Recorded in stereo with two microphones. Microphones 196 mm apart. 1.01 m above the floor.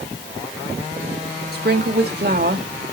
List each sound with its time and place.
1.5 s a woman speaking: 55° right (ahead or behind), 2 m